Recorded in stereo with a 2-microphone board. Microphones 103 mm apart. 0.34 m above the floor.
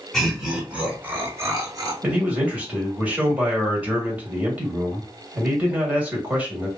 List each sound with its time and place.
0.1 s laughter: centre (ahead or behind), 1.7 m; by 1.9 s 40° right (ahead or behind), 1.4 m
2.0 s a man speaking: 15° right (ahead or behind), 1.6 m